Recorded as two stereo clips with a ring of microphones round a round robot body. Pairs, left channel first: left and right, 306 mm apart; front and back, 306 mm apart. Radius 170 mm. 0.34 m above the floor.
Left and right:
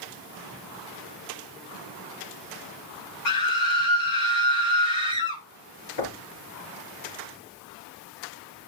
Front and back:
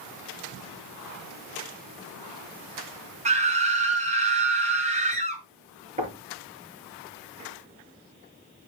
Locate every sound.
3.2 s a scream: 115° left, 4.5 m
6.0 s knocking: 110° left, 5 m